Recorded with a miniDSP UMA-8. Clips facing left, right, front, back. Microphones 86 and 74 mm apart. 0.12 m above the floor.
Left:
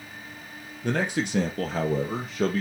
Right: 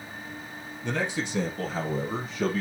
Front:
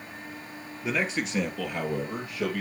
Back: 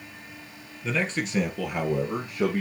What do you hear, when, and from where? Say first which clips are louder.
0.8 s a man speaking: left 3 dB, back 1 dB; 75° left, 1.9 m; by 2.6 s 120° left, 3 m